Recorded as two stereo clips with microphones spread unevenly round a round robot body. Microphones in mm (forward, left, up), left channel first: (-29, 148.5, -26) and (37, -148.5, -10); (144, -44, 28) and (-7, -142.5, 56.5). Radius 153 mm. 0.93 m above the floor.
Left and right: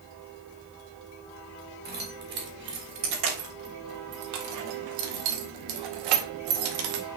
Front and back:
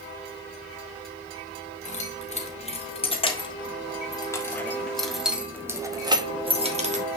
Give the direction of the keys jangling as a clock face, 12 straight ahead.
1 o'clock.